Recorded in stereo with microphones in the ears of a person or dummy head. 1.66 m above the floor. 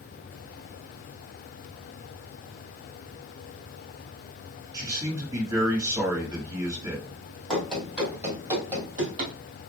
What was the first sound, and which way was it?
A man speaking, 15° right (ahead or behind).